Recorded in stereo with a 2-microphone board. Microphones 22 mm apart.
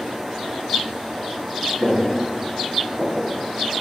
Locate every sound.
1.8 s footsteps: 80° right, 2.0 m; by 3.4 s 75° right (ahead or behind), 1.2 m